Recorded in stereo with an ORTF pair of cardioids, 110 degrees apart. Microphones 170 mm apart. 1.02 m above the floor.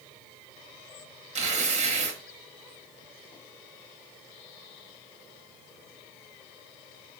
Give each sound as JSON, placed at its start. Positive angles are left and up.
{"t": 1.4, "sound": "tearing paper", "azimuth_deg": -45, "distance_m": 0.8}